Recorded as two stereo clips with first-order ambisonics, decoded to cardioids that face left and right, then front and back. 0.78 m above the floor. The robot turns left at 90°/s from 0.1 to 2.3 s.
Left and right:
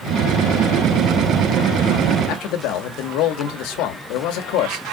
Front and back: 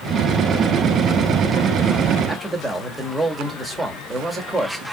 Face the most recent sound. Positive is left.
turn(degrees=100)